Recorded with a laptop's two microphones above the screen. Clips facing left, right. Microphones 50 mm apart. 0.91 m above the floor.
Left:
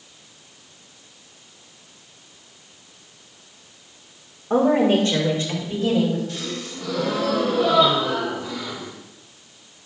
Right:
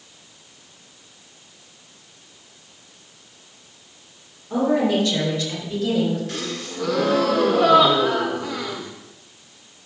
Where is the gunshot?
I don't hear a gunshot.